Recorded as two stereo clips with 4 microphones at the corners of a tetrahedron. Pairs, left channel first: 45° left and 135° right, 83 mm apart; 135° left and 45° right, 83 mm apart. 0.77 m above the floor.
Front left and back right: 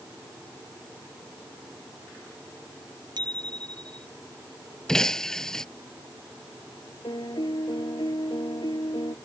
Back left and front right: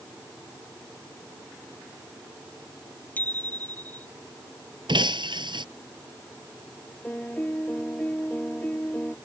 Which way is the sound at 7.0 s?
65° left.